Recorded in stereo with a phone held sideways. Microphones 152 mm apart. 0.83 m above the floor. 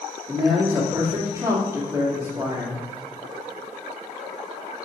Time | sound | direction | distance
0.3 | a man speaking | 20° right (ahead or behind) | 2.0 m